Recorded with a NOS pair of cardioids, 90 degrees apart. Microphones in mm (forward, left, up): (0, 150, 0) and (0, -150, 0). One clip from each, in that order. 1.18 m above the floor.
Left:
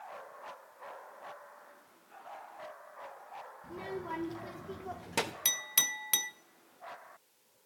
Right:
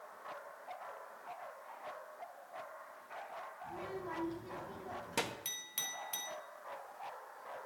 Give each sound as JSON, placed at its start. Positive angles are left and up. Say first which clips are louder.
{"t": 3.6, "sound": "a child speaking", "louder": "left 4 dB", "azimuth_deg": 50, "distance_m": 2.5}
{"t": 5.5, "sound": "a clink", "louder": "left 10 dB", "azimuth_deg": 60, "distance_m": 0.6}